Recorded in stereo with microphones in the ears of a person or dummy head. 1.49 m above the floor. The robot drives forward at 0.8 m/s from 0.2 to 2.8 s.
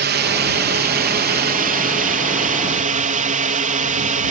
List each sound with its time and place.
0.0 s a drone: 50° right (ahead or behind); by 4.3 s 40° right (ahead or behind)